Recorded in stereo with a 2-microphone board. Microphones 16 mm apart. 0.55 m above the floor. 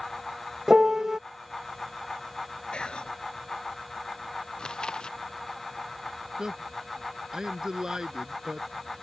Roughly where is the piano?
Right.